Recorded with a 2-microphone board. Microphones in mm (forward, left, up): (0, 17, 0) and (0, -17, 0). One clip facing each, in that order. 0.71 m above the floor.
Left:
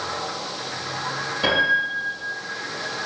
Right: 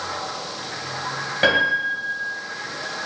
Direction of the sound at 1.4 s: 75° right (ahead or behind).